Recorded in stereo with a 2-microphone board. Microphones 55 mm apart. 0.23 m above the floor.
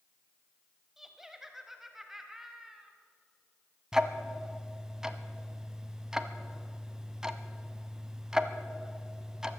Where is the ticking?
10° right (ahead or behind), 0.8 m.